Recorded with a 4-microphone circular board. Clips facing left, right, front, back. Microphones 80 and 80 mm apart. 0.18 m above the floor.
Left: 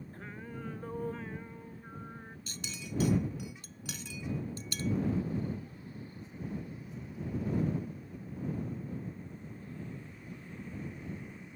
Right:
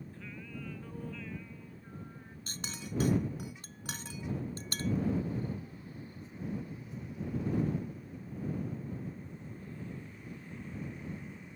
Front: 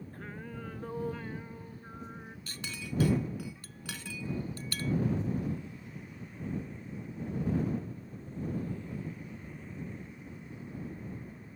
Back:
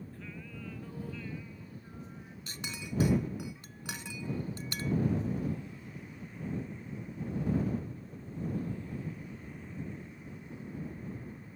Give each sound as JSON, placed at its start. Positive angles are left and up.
{"t": 0.1, "sound": "singing", "azimuth_deg": 45}
{"t": 2.5, "sound": "a clink", "azimuth_deg": -115}